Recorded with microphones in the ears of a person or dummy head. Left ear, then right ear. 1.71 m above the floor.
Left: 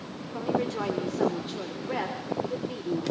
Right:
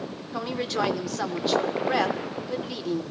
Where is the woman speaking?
45° right (ahead or behind), 1.4 m.